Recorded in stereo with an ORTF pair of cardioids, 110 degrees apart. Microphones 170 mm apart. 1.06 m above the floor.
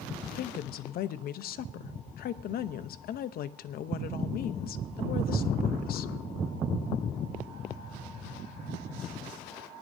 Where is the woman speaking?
55° left, 0.8 m.